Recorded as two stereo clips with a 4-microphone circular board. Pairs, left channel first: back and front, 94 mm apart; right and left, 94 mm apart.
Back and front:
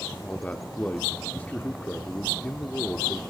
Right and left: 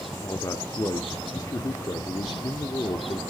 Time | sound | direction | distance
0.1 | a man speaking | 115° right | 0.8 m